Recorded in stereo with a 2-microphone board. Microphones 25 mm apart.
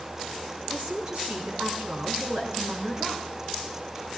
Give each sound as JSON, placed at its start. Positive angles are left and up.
{"t": 0.7, "sound": "a woman speaking", "side_deg": -75, "distance_m": 4.5}